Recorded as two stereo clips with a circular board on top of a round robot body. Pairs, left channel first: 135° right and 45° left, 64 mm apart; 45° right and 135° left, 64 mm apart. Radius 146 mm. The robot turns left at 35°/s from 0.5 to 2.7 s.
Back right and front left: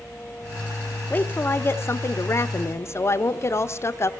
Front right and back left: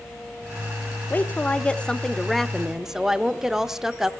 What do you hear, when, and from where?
1.1 s a woman speaking: 90° right, 1.1 m; by 4.1 s 145° right, 1.1 m